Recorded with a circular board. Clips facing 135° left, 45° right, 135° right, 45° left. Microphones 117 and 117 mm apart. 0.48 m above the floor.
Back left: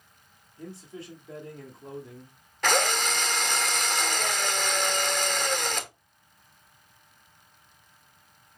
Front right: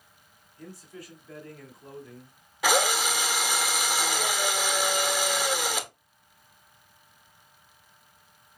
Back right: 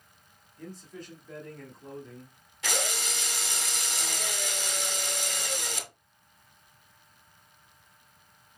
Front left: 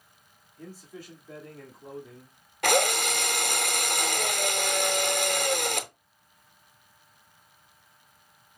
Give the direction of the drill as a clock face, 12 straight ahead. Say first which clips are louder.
Front right 1 dB, front left 10 dB; 11 o'clock.